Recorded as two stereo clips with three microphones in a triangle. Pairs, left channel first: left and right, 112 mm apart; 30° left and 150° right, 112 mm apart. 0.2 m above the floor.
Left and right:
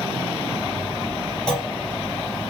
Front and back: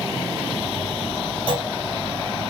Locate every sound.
1.5 s a clunk: 170° left, 2.5 m